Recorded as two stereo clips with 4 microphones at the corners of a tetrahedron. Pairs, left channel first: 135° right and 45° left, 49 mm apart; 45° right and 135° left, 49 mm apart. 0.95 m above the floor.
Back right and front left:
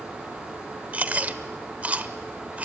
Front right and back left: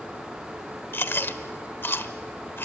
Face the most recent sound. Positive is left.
turn(degrees=-10)